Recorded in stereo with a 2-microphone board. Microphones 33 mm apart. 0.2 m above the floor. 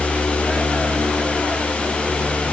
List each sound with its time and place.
Only background noise.